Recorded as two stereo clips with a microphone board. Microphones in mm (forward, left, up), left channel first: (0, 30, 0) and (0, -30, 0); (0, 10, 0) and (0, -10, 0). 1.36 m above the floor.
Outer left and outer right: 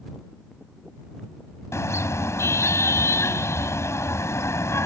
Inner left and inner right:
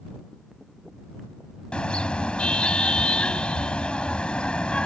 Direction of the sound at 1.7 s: 50° left (ahead or behind).